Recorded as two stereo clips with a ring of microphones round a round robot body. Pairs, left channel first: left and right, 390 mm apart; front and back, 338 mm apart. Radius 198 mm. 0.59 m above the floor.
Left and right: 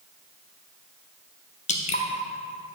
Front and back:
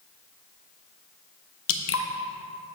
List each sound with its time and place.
1.7 s dripping: 25° left, 0.6 m